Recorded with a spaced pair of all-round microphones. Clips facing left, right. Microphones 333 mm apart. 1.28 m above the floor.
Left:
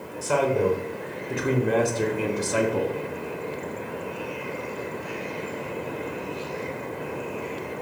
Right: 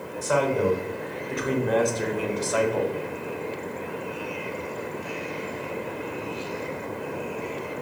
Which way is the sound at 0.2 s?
40° left (ahead or behind).